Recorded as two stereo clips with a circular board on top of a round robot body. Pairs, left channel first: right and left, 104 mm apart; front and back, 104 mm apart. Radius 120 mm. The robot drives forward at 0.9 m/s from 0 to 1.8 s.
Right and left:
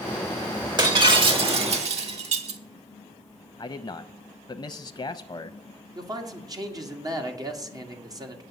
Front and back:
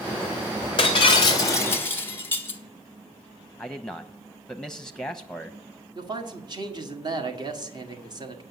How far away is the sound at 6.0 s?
About 1.8 m.